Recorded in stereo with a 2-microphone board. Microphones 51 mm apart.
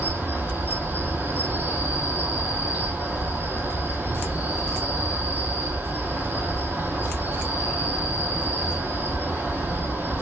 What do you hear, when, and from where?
0.0 s an insect: 40° right (ahead or behind), 0.9 m